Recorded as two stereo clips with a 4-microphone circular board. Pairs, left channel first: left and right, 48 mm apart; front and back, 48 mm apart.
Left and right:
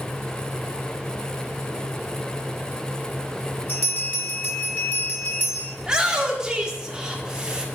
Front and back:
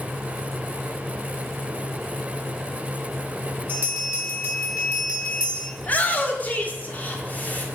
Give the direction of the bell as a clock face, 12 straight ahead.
8 o'clock.